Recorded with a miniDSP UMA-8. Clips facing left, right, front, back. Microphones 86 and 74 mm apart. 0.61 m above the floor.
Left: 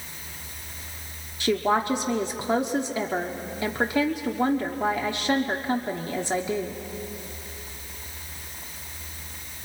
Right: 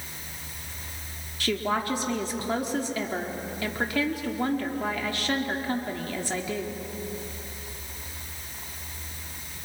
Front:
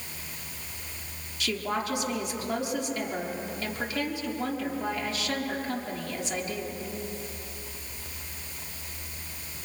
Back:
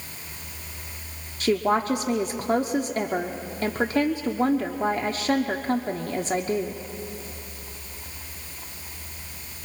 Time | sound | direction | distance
1.4 | a woman speaking | 150° left | 1.0 m